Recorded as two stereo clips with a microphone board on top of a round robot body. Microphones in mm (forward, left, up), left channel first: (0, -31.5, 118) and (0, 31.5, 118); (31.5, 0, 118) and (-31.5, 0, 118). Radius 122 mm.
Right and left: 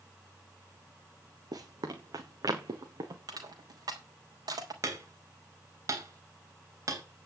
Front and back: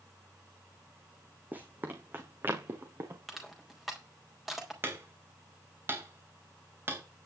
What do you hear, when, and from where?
1.5 s running footsteps: 115° left, 2 m; by 3.2 s 125° left, 4 m
3.3 s crushing: 95° left, 4.5 m
4.8 s hammering: 125° left, 4 m